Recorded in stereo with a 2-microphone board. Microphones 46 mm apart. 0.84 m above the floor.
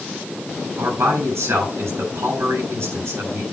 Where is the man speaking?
80° right, 6.5 m.